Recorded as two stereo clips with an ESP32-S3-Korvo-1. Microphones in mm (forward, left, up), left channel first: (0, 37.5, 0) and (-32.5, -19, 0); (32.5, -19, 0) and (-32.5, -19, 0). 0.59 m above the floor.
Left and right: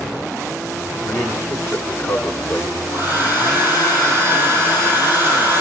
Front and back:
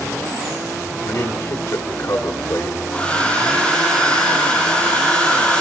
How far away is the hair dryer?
About 4.5 m.